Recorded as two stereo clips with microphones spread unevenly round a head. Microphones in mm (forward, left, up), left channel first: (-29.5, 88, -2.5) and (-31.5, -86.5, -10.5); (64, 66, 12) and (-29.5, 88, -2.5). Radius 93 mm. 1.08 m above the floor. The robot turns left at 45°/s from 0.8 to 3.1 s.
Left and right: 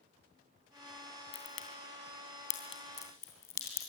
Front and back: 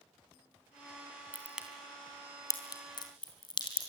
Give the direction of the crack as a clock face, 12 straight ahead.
9 o'clock.